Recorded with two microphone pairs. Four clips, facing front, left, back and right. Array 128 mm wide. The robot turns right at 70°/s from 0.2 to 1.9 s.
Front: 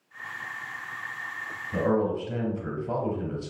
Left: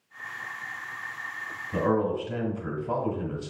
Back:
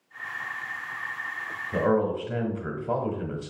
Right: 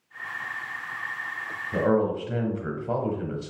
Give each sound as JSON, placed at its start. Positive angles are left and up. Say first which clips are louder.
{"t": 1.7, "sound": "a man speaking", "louder": "right 2 dB, back 1 dB", "azimuth_deg": -155, "distance_m": 1.0}